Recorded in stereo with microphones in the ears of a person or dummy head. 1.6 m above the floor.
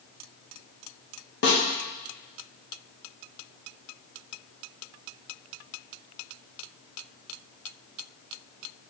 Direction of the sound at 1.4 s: 55° left (ahead or behind).